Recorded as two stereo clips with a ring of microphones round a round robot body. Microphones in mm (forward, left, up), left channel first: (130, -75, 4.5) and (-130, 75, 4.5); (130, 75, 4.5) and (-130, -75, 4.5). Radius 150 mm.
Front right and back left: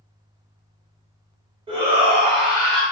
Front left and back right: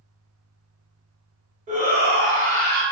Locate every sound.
1.7 s a shout: 165° right, 1.0 m; by 2.8 s 140° right, 1.3 m